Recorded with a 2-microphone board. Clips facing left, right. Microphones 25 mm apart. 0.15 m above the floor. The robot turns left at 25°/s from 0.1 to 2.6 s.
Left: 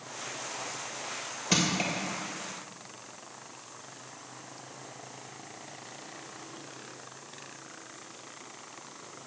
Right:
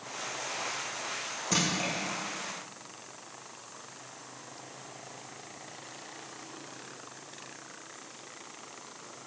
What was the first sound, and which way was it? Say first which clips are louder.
Crushing: left 2 dB; 45° left (ahead or behind).